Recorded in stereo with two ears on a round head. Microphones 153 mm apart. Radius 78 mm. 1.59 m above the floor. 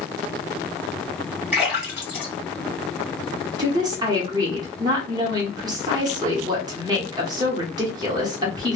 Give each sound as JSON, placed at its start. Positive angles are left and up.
{"t": 1.5, "sound": "a splash", "side_deg": -5, "distance_m": 1.5}
{"t": 3.6, "sound": "a woman speaking", "side_deg": -25, "distance_m": 0.9}